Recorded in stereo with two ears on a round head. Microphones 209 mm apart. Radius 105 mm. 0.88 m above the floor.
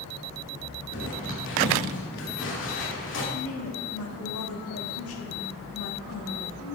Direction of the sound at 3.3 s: 65° left (ahead or behind).